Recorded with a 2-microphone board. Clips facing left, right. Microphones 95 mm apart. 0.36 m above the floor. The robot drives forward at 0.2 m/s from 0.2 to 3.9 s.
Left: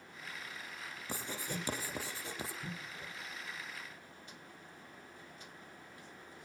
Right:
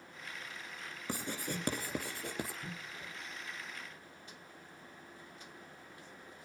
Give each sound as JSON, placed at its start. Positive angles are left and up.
{"t": 1.1, "sound": "writing", "side_deg": -55, "distance_m": 4.5}